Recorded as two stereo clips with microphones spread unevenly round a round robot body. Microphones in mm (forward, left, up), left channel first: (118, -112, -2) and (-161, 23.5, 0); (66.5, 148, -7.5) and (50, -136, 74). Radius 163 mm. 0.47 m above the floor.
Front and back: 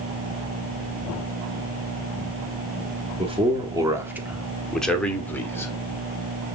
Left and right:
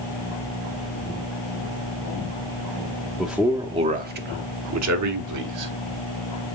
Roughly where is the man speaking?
Behind left.